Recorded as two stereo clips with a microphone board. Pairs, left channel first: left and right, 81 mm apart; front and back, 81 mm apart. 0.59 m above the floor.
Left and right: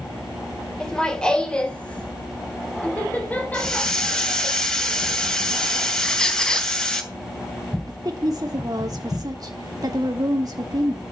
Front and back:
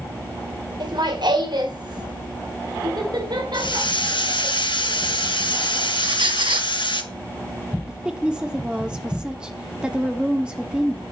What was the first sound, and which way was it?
Laughter, 170° left.